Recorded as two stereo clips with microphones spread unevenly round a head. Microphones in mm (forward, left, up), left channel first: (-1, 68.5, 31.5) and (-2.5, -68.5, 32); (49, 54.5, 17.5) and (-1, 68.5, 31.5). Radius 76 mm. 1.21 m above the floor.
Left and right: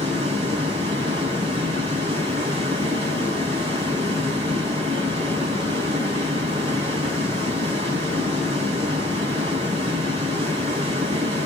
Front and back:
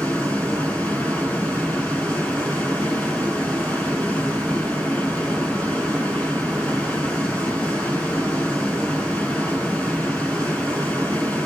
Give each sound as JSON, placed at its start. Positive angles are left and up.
{"t": 0.0, "sound": "running water", "azimuth_deg": -135, "distance_m": 5.0}